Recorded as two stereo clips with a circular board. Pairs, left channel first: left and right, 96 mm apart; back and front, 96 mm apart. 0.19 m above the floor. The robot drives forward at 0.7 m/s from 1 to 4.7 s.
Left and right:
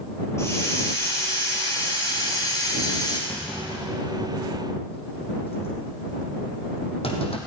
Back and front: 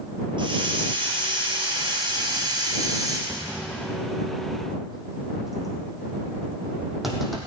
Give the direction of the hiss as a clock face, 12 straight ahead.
11 o'clock.